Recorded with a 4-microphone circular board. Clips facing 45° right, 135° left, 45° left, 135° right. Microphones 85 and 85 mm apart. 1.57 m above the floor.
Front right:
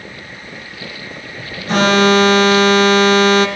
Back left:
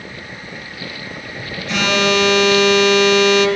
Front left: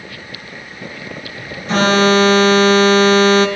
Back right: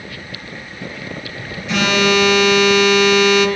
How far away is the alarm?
About 2 m.